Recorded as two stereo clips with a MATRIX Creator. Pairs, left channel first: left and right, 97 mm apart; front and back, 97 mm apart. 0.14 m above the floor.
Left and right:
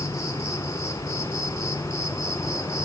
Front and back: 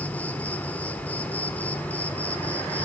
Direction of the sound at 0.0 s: 65° left.